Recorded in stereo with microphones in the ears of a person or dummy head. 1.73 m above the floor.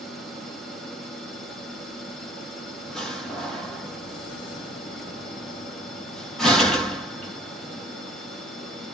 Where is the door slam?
5° left (ahead or behind), 1.2 m.